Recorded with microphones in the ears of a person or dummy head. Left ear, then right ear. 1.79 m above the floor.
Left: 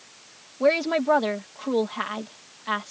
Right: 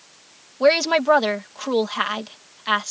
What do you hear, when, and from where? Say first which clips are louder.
0.6 s a woman speaking: right 5 dB; 50° right (ahead or behind)